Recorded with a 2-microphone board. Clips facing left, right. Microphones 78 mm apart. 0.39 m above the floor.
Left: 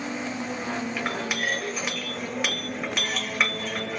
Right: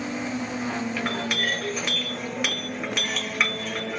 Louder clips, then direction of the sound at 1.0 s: Right 1 dB; 5° left (ahead or behind).